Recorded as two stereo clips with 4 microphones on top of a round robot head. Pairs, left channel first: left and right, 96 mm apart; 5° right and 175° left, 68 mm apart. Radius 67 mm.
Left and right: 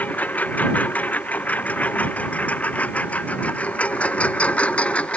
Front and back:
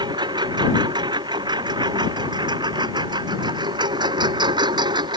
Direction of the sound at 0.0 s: 165° left.